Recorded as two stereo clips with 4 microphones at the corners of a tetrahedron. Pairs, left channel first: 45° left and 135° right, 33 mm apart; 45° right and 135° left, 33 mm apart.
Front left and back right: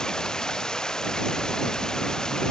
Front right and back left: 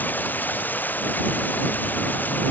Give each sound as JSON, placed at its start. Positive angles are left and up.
{"t": 0.0, "sound": "running water", "azimuth_deg": -25}